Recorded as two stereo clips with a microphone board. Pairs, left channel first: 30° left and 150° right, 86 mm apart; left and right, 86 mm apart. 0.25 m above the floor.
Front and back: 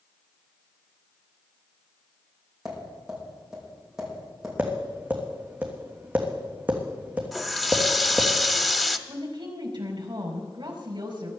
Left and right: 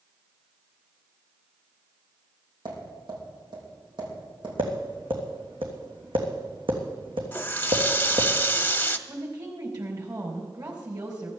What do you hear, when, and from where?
2.6 s tapping: 65° right, 6.5 m
4.6 s tapping: 75° right, 3 m
7.3 s a running tap: 115° left, 0.6 m
9.1 s a woman speaking: 125° right, 4.5 m